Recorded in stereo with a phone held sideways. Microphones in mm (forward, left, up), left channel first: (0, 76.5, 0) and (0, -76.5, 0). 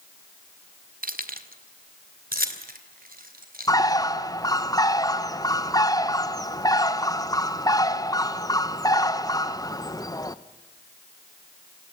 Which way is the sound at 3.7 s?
25° left (ahead or behind).